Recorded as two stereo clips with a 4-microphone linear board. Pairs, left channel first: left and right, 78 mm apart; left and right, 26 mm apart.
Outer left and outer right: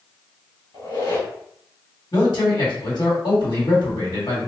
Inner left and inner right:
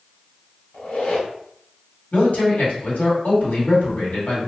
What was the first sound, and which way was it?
A squeak, 65° left (ahead or behind).